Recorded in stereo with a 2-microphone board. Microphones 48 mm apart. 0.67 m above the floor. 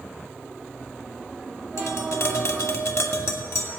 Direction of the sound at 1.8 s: 75° left (ahead or behind).